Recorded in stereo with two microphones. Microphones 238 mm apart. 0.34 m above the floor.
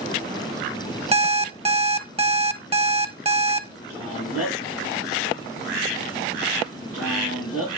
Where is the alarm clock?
25° right (ahead or behind), 0.8 m.